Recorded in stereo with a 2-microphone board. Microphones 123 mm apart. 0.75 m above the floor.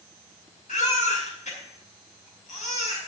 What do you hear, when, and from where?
0.7 s a baby crying: 85° left, 4.5 m